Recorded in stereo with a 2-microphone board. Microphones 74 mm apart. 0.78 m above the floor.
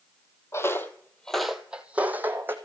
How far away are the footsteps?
About 0.9 m.